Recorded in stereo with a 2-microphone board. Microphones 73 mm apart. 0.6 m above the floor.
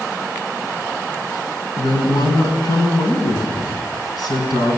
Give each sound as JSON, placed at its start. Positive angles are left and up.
{"t": 1.8, "sound": "a woman speaking", "side_deg": 60, "distance_m": 5.0}